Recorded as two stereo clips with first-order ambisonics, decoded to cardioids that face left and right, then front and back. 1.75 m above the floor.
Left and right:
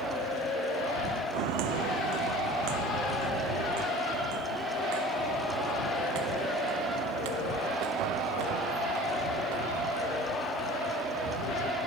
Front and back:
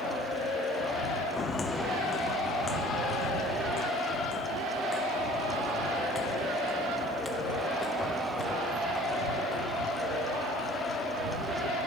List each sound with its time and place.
1.3 s footsteps: 75° right; by 9.9 s 80° right